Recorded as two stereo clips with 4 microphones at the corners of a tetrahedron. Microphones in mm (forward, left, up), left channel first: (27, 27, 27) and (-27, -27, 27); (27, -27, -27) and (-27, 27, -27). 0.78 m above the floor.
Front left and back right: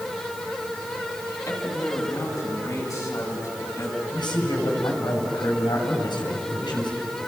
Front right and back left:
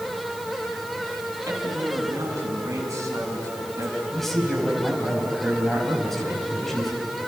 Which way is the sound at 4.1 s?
40° left.